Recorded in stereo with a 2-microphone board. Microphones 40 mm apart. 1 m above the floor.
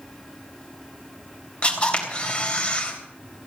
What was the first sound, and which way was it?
A camera shutter, 30° left (ahead or behind).